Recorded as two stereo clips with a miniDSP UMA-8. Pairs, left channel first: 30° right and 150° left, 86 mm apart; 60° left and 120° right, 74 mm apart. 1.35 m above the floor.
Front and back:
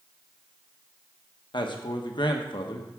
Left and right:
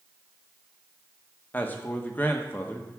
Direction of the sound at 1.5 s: 5° right.